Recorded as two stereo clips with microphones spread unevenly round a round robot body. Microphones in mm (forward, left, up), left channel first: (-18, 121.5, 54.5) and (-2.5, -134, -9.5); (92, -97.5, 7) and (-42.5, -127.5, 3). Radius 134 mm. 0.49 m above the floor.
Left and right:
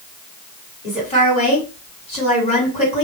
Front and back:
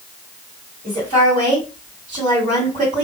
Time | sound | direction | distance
0.8 | a woman speaking | 165° left | 1.9 m